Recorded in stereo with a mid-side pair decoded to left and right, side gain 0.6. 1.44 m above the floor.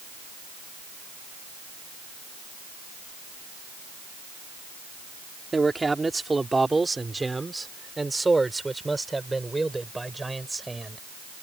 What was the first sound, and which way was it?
A man speaking, 15° right.